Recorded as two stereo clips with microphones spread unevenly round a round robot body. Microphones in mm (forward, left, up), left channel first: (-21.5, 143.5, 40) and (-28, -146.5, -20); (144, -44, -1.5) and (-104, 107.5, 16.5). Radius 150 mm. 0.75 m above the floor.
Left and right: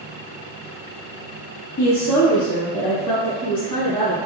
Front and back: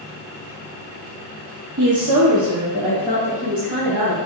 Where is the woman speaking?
115° left, 0.8 m; by 4.2 s 135° left, 4 m.